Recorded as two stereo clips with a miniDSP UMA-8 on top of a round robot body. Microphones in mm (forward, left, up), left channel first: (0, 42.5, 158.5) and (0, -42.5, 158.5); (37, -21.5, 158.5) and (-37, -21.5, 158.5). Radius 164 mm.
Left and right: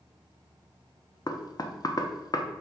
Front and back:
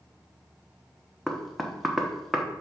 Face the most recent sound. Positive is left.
turn(degrees=90)